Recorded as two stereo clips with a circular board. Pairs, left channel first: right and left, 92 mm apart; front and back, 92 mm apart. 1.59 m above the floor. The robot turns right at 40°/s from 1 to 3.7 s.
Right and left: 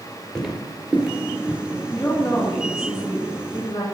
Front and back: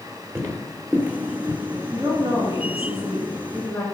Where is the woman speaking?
165° right, 2.5 m; by 3.9 s 95° right, 2.5 m.